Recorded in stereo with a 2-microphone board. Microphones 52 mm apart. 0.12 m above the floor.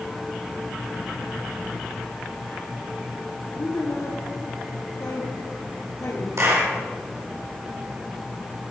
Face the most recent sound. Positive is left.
turn(degrees=-65)  # may be behind; listen again after turning